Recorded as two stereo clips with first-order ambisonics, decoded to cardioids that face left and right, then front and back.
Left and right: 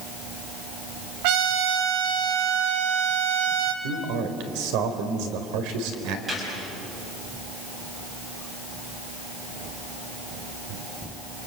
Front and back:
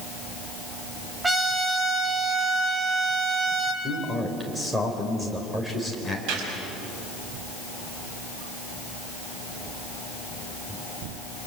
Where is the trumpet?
95° right, 2.5 m.